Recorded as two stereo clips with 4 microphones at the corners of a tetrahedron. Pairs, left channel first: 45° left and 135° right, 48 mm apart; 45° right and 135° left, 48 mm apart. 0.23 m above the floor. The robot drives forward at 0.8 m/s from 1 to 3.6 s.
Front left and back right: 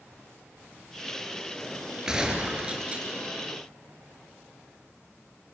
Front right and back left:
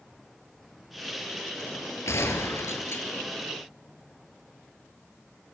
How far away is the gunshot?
About 3 m.